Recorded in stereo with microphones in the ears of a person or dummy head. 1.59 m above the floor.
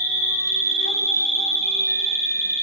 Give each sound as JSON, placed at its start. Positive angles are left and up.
{"t": 0.0, "sound": "an insect", "side_deg": -15, "distance_m": 1.0}